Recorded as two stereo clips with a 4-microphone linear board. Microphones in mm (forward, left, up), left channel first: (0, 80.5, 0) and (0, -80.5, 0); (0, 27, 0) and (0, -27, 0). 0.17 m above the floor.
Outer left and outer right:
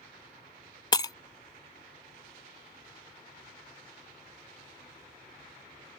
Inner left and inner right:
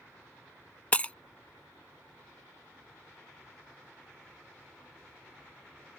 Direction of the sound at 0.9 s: 25° left (ahead or behind).